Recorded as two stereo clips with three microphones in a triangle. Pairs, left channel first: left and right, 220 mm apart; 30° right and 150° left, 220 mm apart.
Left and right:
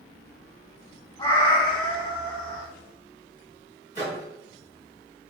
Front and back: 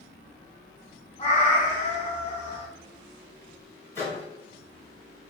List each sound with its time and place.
1.2 s a cat meowing: 25° left, 1.0 m
4.0 s a microwave: 45° left, 1.7 m